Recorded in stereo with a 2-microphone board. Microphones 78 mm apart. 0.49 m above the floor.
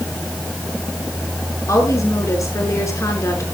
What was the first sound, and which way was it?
A woman speaking, 45° left (ahead or behind).